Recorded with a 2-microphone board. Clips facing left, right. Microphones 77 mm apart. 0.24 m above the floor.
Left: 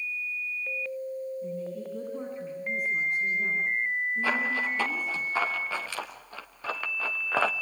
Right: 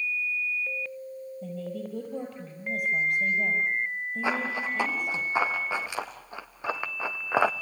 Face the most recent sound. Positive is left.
turn(degrees=-15)  # may be behind; listen again after turning